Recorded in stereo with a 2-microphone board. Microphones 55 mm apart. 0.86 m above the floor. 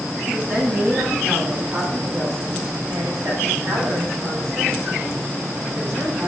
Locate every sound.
0.3 s a woman speaking: 40° right (ahead or behind), 8 m; by 6.3 s 60° right (ahead or behind), 6 m